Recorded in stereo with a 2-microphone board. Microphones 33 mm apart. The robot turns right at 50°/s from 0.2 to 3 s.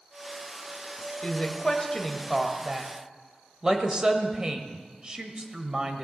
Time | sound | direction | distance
1.2 | a woman speaking | 40° left (ahead or behind) | 1.3 m